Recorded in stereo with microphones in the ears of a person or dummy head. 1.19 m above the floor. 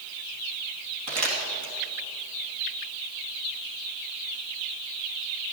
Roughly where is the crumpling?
Right.